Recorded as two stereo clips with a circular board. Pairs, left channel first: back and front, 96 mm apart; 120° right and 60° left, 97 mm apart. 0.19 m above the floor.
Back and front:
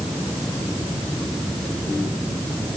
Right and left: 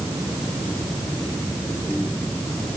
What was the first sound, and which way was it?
Only background noise.